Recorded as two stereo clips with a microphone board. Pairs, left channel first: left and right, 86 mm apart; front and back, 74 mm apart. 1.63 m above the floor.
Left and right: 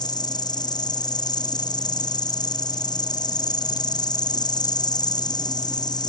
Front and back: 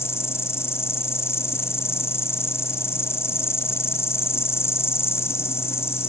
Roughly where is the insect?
Ahead left.